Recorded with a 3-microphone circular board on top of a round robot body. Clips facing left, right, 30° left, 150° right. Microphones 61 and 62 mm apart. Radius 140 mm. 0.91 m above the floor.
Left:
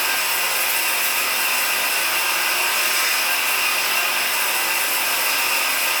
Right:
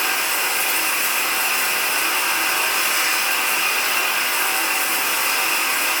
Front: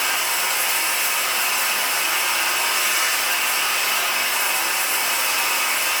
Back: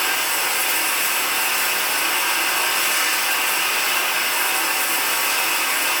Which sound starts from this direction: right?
Running water, at 0.0 s.